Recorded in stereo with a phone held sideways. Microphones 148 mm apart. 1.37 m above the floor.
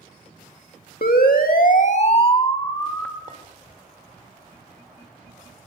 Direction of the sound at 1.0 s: 85° left.